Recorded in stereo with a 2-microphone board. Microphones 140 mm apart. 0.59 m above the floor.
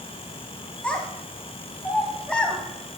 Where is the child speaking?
5° left (ahead or behind), 2.5 m.